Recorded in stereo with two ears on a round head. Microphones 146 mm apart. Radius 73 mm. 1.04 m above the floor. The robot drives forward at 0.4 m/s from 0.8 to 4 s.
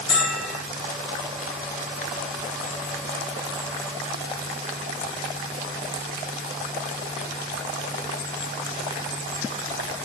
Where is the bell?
35° left (ahead or behind), 3 m.